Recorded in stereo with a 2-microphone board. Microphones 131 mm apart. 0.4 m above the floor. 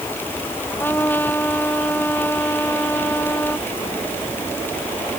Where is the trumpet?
15° left (ahead or behind).